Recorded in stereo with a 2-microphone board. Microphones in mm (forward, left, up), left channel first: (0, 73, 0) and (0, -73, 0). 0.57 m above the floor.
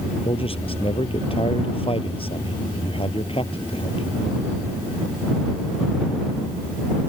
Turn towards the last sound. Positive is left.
turn(degrees=40)  # may be behind; listen again after turning